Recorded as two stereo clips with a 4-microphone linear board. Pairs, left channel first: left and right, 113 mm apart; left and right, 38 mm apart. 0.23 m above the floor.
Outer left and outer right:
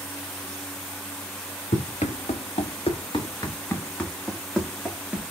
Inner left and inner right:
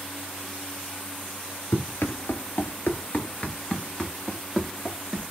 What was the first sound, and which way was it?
Running footsteps, 80° left.